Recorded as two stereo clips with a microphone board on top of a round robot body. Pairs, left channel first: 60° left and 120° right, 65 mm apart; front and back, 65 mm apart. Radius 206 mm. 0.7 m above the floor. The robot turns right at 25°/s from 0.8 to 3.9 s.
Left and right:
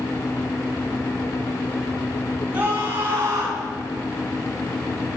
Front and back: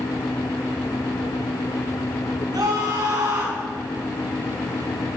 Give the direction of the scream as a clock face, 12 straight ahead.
6 o'clock.